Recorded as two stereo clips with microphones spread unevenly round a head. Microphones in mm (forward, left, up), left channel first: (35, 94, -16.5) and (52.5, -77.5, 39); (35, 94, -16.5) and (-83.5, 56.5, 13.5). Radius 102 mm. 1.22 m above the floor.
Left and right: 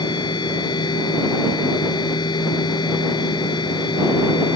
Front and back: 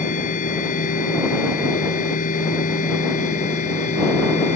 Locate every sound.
0.0 s a machine running: 30° left